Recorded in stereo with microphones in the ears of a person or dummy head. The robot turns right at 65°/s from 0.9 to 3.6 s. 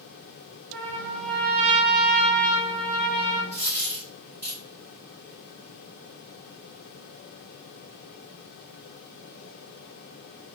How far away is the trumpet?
About 0.8 m.